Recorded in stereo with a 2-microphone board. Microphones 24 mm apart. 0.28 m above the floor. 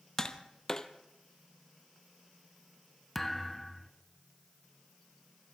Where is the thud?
10° left (ahead or behind), 1.2 m.